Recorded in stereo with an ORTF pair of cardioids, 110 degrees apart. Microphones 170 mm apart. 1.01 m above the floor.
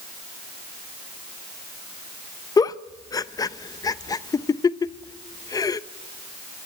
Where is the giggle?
20° left, 0.6 m.